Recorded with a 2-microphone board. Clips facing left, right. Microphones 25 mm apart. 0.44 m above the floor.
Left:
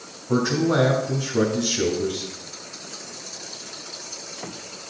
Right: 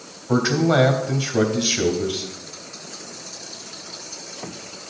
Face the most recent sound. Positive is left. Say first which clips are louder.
# right 2 dB
turn(degrees=-50)  # may be behind; listen again after turning